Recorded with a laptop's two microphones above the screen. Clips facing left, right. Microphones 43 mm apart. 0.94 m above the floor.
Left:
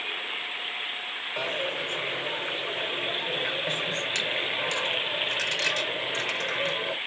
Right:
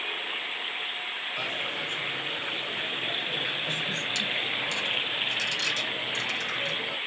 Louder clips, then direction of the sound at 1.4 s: Left 4 dB; 75° left (ahead or behind).